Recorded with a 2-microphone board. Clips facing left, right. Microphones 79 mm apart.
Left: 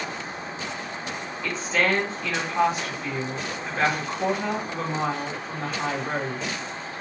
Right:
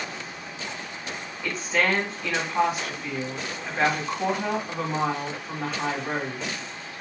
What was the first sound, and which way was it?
A woman speaking, 10° right (ahead or behind).